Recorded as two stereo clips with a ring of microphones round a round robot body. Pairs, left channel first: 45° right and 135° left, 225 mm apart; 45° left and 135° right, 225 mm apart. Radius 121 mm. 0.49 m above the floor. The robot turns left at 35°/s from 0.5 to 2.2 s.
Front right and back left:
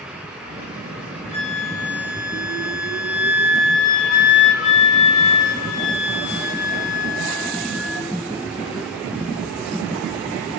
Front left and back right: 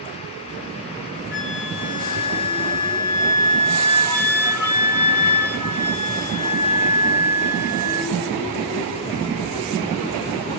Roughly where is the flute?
Ahead.